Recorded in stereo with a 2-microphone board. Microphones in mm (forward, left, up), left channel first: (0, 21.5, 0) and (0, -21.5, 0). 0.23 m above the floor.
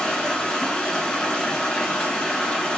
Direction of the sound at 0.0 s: 20° left (ahead or behind).